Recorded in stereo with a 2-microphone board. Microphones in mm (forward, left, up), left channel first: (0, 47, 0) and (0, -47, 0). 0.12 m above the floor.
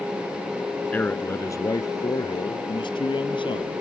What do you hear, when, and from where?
0.9 s a man speaking: 20° left (ahead or behind); by 3.8 s 65° left (ahead or behind)